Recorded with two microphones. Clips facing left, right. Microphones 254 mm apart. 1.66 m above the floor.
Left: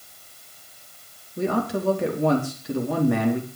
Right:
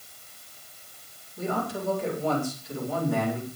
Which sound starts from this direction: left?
A man speaking, at 1.4 s.